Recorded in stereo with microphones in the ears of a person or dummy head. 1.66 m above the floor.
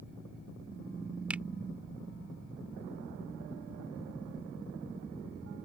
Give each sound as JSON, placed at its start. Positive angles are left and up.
{"t": 1.3, "sound": "a finger snap", "side_deg": -5}